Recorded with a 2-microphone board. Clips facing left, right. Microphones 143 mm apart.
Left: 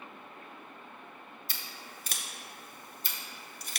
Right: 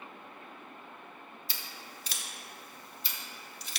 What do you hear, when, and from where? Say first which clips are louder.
1.5 s scissors: even; 50° left (ahead or behind), 0.6 m